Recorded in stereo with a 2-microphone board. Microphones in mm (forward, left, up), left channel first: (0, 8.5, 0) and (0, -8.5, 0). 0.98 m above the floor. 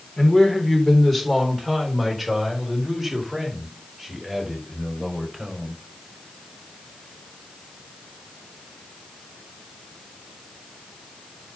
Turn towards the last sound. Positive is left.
turn(degrees=-15)  # may be behind; listen again after turning